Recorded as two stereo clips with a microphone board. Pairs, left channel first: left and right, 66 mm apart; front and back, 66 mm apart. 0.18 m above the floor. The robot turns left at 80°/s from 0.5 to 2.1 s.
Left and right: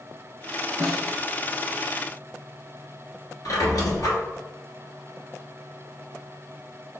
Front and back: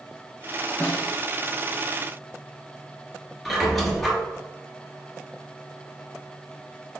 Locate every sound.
0.8 s a snare drum: 65° right, 1.4 m; by 1.1 s 90° right, 1.4 m
3.5 s a squeak: 90° left, 1.2 m